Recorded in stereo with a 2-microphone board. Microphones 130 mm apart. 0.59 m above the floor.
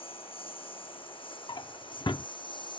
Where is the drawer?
40° left (ahead or behind).